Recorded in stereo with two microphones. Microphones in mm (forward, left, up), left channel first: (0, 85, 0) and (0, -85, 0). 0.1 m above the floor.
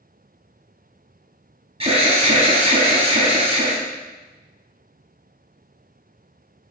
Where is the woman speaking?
I don't hear a woman speaking.